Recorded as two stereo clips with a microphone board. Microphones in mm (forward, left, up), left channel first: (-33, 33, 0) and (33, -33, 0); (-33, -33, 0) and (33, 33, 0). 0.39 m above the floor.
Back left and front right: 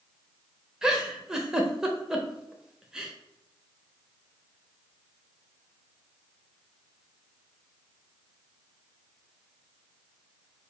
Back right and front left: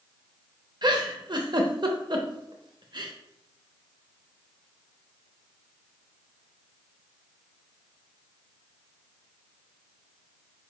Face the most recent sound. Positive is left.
turn(degrees=35)